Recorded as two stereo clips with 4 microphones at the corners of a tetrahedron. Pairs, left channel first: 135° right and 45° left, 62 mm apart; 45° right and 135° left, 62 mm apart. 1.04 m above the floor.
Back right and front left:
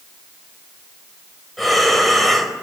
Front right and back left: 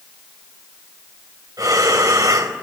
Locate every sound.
1.6 s breathing: 135° left, 4.5 m